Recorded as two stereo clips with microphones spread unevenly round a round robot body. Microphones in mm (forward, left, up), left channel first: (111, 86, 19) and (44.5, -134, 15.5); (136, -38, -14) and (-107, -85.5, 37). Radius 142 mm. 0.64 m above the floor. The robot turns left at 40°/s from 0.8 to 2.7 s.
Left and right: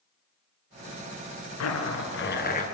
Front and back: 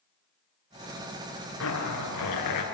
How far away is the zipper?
About 3.5 m.